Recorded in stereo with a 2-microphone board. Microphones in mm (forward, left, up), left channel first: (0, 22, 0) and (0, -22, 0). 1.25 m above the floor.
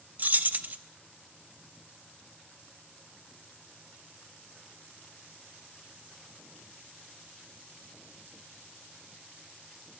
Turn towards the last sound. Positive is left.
turn(degrees=-40)  # may be behind; listen again after turning